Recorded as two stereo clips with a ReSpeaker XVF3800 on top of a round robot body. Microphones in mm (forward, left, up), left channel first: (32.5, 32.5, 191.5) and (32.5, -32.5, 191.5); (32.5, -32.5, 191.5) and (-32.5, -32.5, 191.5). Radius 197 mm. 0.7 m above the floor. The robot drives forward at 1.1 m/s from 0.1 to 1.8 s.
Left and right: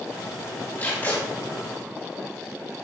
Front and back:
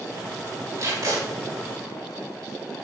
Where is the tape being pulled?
150° left, 4 m; by 1.2 s 155° left, 4.5 m.